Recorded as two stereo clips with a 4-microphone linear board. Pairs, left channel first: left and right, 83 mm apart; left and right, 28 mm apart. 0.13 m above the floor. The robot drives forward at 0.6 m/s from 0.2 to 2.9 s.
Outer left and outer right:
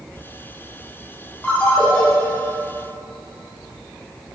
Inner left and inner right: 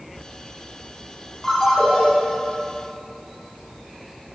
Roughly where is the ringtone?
Centre.